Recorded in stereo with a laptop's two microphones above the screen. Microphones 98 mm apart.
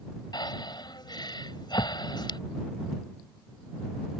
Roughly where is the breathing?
Left.